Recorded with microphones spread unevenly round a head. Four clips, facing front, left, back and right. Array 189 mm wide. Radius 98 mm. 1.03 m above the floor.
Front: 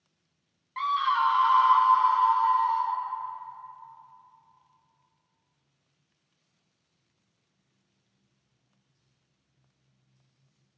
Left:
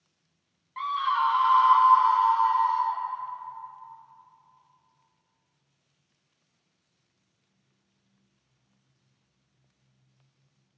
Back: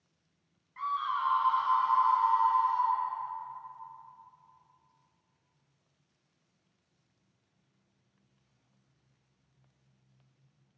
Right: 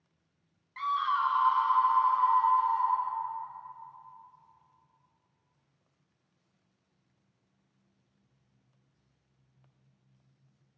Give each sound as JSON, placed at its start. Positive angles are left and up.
{"t": 0.8, "sound": "a scream", "azimuth_deg": 10, "distance_m": 0.5}